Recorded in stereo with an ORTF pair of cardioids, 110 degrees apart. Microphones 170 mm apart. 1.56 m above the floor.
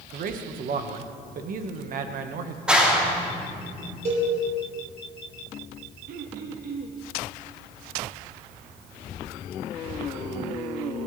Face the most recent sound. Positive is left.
turn(degrees=-60)